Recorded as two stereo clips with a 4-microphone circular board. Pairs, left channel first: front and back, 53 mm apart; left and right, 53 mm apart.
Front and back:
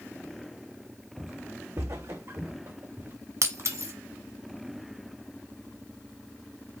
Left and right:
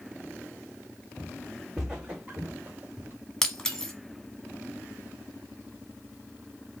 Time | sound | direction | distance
1.2 | footsteps | 165° left | 1.0 m
3.4 | breaking glass | 170° left | 1.1 m